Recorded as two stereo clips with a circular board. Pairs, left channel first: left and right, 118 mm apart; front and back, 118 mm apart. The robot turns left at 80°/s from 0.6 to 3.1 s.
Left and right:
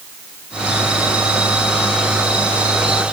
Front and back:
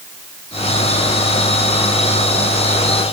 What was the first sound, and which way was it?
Only background noise.